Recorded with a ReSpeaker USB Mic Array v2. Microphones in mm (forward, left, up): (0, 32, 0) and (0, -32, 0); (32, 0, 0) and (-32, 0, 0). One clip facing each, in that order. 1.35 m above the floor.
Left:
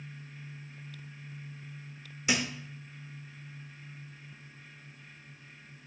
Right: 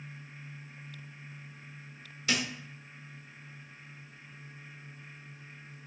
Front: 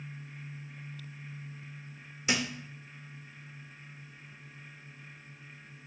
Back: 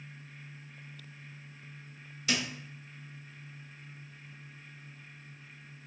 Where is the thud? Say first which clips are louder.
Left 1 dB, front 2 dB; 35° left, 0.6 m.